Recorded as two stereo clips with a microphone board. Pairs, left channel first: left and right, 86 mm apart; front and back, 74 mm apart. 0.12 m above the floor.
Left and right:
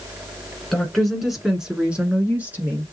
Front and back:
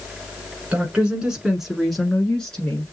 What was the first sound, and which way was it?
A woman speaking, 165° left.